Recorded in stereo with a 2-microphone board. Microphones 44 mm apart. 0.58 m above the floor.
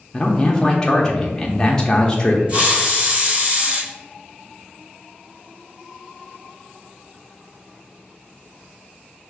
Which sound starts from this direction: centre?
A man speaking, at 0.1 s.